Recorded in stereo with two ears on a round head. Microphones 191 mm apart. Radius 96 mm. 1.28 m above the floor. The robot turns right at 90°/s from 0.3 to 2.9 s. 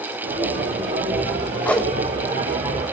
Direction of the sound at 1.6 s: 10° left (ahead or behind).